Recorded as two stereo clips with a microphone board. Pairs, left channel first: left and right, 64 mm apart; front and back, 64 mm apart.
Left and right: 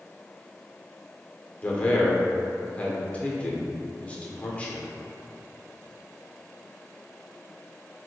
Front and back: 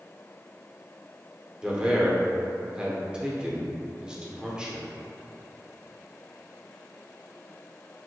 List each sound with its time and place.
1.6 s a man speaking: 120° left, 0.8 m